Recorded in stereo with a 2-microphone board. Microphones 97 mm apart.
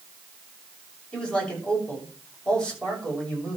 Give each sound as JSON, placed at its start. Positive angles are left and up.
{"t": 1.1, "sound": "a man speaking", "side_deg": 10, "distance_m": 6.0}